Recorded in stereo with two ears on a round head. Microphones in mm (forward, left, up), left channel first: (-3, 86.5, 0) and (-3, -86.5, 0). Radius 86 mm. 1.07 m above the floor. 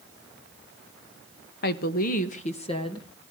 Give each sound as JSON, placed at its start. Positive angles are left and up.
{"t": 1.6, "sound": "a woman speaking", "side_deg": 55, "distance_m": 1.1}